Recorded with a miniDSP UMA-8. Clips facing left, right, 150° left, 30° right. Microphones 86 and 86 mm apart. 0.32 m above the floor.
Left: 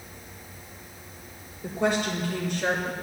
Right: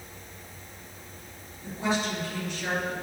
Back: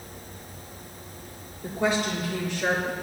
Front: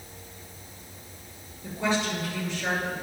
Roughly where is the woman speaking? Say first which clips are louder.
Left 3 dB, back 2 dB; behind left.